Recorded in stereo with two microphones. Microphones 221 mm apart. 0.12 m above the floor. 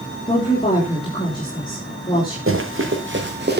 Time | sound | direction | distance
0.3 | a woman speaking | 20° left (ahead or behind) | 6 m
2.5 | running footsteps | 65° right (ahead or behind) | 3.5 m